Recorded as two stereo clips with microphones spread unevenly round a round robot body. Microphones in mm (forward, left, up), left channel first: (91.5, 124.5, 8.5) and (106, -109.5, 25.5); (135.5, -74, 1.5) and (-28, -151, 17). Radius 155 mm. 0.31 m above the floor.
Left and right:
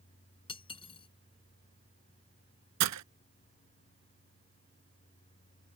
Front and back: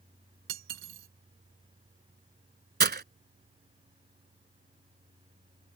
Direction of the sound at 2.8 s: 120° right.